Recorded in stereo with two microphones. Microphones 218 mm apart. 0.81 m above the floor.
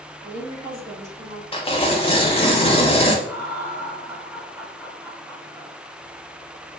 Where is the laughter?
10° right (ahead or behind), 1.8 m.